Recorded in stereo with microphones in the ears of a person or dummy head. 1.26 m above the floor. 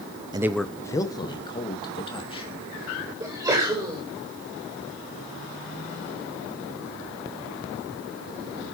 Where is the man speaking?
20° right (ahead or behind), 0.6 m; by 2.5 s 30° left (ahead or behind), 3.5 m.